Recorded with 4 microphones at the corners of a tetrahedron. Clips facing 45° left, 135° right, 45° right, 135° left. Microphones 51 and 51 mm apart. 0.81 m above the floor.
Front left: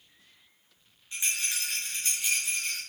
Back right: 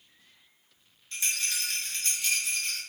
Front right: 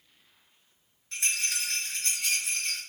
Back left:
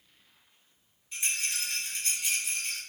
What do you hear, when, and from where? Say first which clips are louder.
1.1 s a rattle: even, front right 2 dB; 30° right, 4.5 m